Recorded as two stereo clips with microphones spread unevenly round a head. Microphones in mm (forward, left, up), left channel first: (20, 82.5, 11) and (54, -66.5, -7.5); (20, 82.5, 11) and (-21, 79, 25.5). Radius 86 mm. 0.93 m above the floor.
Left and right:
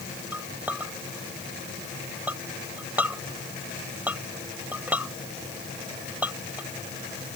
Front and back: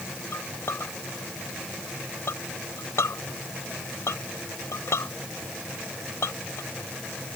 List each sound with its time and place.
0.3 s a clink: 5° left